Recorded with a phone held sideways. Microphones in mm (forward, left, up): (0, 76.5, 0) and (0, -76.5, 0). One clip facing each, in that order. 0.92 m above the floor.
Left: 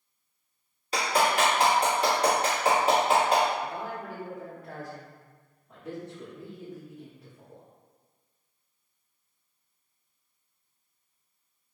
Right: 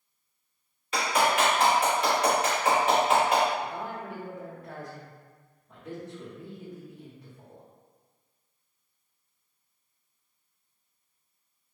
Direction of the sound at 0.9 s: 35° left (ahead or behind).